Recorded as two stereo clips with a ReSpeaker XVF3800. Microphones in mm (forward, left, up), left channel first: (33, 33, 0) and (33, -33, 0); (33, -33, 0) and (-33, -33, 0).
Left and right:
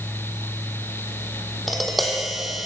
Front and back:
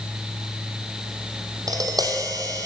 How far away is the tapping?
About 3 m.